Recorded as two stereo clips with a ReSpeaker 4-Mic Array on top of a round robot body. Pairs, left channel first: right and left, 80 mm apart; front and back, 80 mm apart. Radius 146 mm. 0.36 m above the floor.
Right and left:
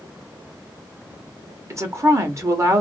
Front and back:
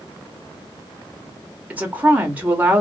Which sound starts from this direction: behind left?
A woman speaking, at 1.7 s.